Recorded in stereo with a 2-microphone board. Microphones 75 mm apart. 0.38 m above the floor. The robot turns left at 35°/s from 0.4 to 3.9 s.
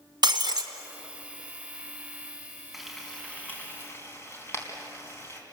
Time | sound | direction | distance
0.2 | breaking glass | 75° right (ahead or behind) | 1.6 m
2.7 | frying | 5° right (ahead or behind) | 4 m